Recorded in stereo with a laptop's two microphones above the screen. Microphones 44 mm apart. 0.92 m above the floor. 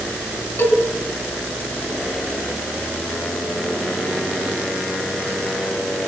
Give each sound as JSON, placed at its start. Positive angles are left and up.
{"t": 0.6, "sound": "a cowbell", "side_deg": 75, "distance_m": 7.0}